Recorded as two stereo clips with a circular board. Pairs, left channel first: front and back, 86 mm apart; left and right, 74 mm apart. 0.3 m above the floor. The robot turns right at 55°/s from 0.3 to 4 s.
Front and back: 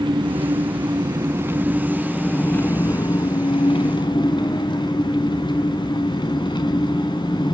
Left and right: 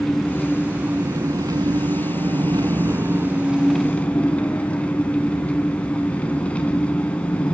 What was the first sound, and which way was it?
An engine running, 175° left.